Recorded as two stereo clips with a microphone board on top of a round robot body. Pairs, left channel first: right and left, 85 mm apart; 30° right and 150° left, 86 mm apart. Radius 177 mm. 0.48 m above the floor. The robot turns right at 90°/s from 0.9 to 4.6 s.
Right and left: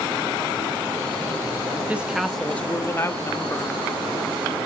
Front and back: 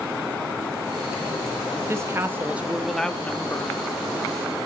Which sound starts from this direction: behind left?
A woman speaking, at 1.9 s.